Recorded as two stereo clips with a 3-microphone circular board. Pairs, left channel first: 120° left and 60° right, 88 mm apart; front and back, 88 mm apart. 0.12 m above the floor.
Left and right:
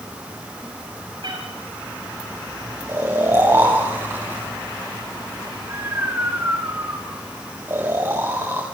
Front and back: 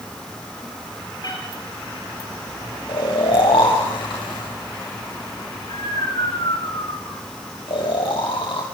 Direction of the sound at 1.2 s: 35° right.